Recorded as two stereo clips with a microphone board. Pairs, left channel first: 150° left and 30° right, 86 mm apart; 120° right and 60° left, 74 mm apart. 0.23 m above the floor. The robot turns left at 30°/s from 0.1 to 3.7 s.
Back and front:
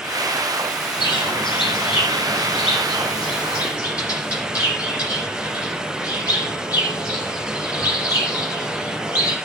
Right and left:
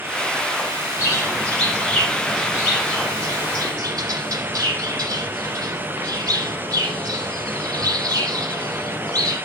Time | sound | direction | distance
1.0 | a bird | straight behind | 9 m